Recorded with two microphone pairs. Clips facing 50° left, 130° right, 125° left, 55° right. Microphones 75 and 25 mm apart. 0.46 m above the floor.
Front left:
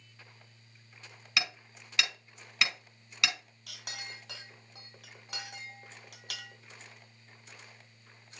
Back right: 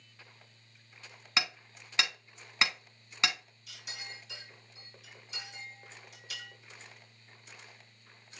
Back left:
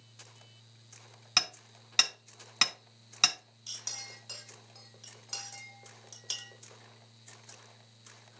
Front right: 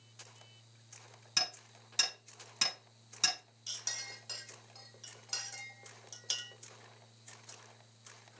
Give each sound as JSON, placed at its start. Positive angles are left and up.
{"t": 1.4, "sound": "hammering", "azimuth_deg": 170, "distance_m": 3.5}
{"t": 3.7, "sound": "a clink", "azimuth_deg": 30, "distance_m": 2.0}